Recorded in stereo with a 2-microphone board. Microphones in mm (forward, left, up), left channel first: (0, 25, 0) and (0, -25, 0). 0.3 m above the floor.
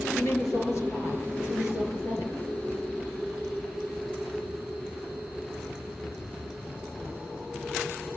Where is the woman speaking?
60° left (ahead or behind), 6.5 m.